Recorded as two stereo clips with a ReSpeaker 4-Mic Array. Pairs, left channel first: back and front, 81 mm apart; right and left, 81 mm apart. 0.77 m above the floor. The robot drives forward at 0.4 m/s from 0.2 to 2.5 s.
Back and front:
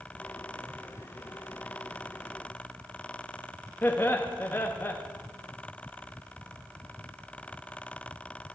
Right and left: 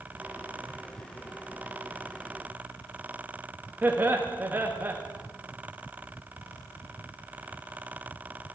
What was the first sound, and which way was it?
Laughter, 135° left.